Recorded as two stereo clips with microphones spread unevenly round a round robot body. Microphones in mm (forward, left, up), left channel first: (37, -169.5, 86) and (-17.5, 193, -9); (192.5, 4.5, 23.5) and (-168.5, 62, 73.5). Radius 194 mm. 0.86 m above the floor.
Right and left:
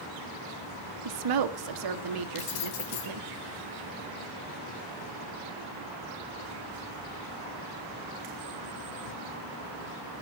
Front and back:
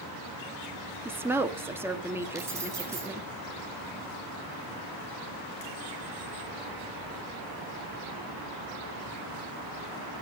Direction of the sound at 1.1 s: 85° left.